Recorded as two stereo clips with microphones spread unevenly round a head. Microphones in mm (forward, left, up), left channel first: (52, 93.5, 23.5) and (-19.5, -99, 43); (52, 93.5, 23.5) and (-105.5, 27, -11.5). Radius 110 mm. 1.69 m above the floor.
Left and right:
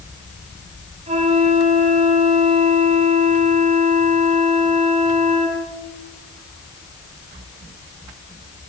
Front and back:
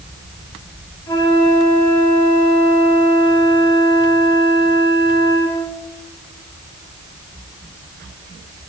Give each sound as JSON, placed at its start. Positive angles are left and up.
{"t": 1.1, "sound": "a flute", "azimuth_deg": -45, "distance_m": 9.0}